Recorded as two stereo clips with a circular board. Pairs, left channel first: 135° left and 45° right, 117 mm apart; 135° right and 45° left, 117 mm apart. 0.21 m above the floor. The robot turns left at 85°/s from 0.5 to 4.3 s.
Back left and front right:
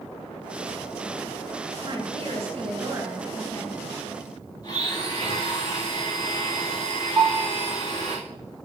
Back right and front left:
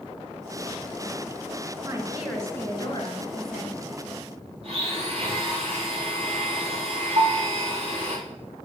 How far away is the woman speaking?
About 3 m.